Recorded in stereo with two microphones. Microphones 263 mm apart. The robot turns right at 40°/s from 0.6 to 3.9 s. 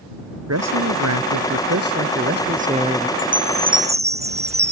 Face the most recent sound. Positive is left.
turn(degrees=-25)  # may be behind; listen again after turning